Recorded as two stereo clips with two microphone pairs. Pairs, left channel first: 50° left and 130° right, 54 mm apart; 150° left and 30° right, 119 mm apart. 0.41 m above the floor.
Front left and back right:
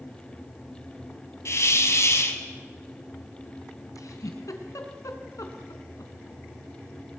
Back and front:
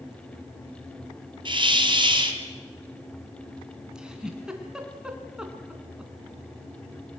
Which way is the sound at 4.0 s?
55° left.